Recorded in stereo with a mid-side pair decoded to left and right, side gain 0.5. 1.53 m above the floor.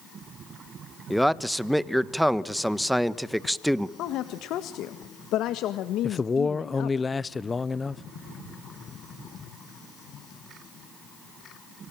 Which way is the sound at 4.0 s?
70° left.